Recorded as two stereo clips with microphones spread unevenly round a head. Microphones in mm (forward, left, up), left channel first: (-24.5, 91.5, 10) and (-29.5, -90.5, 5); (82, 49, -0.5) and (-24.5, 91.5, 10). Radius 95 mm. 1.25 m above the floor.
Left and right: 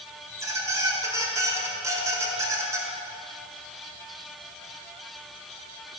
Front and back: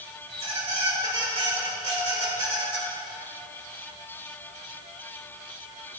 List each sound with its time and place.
0.3 s a squeak: 165° right, 1.4 m